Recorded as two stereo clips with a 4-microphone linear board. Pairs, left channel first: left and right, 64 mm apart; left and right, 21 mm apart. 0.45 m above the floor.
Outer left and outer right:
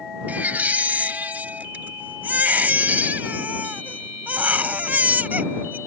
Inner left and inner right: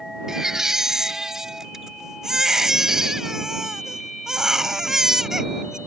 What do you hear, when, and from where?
0.3 s a baby crying: 25° right (ahead or behind)